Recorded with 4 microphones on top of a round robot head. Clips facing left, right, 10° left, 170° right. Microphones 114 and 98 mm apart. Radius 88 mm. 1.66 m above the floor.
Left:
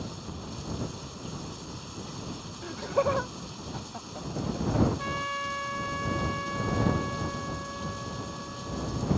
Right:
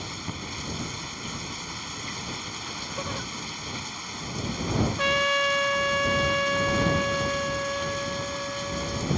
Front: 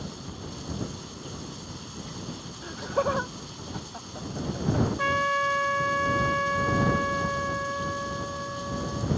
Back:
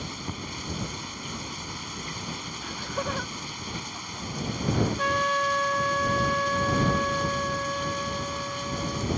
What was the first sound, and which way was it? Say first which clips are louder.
Running water: right 2 dB, back 2 dB; 125° right.